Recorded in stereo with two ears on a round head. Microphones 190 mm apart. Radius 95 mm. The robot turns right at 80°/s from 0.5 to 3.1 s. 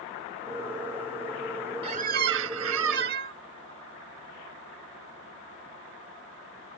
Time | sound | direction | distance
1.8 | a squeak | 150° right | ?